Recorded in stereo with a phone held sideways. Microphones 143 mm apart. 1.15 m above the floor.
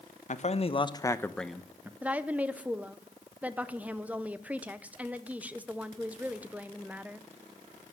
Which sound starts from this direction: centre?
A woman speaking, at 2.0 s.